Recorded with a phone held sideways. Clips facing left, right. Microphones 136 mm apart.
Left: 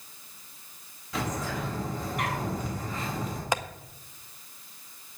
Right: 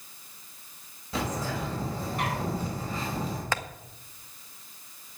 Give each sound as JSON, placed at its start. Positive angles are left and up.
{"t": 1.1, "sound": "a bird", "side_deg": -35, "distance_m": 5.0}
{"t": 3.5, "sound": "tapping", "side_deg": 15, "distance_m": 0.6}